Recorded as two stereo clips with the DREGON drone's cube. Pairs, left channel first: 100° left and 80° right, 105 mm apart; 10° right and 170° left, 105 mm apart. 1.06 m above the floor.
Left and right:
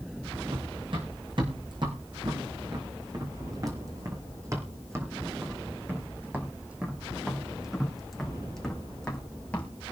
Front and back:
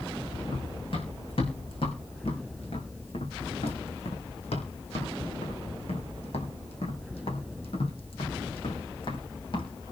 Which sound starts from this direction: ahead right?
Running footsteps, at 0.5 s.